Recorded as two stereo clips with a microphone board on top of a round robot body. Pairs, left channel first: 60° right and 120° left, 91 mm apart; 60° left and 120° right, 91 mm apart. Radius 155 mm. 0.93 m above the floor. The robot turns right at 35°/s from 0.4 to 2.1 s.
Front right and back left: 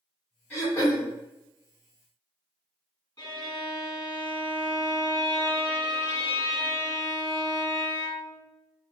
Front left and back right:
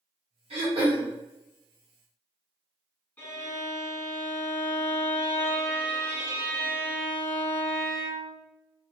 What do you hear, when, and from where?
0.5 s throat clearing: 130° right, 1.8 m; by 1.1 s 115° right, 1.8 m
3.2 s a violin: 15° right, 2.0 m